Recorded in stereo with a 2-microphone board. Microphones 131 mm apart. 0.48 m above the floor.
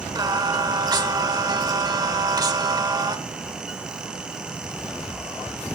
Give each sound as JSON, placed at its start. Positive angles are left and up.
{"t": 0.1, "sound": "singing", "side_deg": -30, "distance_m": 1.2}